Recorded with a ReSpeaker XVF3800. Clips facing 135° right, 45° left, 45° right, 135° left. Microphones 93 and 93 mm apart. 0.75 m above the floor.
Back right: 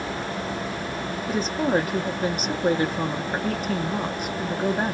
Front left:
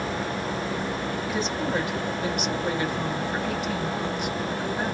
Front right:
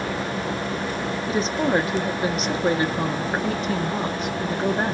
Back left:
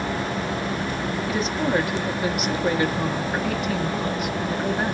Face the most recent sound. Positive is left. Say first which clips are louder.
# back right 6 dB, front right 2 dB
turn(degrees=-95)